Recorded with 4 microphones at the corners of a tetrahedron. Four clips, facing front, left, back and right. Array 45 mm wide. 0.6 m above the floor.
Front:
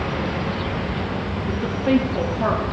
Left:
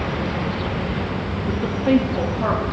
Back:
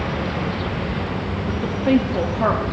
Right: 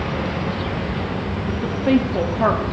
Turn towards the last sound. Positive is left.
turn(degrees=-110)